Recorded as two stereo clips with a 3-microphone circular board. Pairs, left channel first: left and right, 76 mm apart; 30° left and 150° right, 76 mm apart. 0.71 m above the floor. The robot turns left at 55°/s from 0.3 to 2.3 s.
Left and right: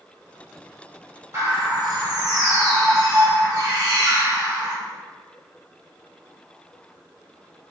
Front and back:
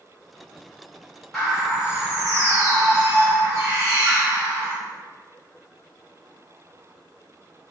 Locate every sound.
1.3 s a bird: 55° right, 1.2 m; by 4.8 s 105° right, 1.2 m